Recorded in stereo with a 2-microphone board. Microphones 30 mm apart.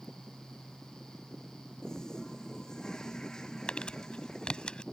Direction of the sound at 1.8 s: 20° left (ahead or behind).